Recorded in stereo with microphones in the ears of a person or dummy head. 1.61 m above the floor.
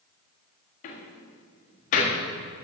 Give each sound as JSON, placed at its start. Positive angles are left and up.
{"t": 0.8, "sound": "a door slam", "side_deg": 50, "distance_m": 1.7}